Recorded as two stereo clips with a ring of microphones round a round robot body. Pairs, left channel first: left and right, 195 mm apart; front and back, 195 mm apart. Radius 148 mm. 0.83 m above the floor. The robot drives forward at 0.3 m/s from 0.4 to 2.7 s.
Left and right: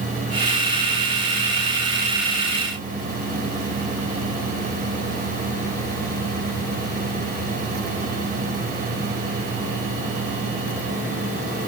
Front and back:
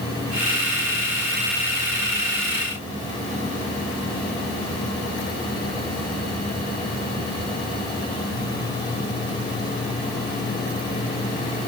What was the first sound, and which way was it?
Only background noise.